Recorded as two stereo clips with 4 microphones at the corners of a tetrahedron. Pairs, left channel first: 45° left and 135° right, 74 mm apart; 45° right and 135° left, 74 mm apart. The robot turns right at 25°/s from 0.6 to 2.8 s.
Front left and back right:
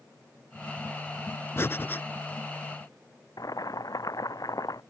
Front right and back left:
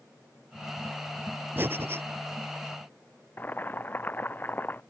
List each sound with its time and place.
1.6 s breathing: 85° left; by 2.0 s 100° left
3.4 s boiling: 20° left